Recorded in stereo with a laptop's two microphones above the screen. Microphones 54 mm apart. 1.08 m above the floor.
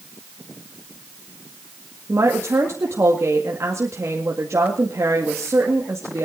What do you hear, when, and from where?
2.1 s a woman speaking: 70° right (ahead or behind), 1.9 m